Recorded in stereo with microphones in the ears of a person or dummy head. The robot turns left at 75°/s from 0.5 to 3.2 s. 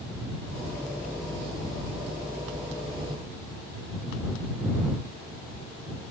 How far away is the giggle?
No giggle in this recording.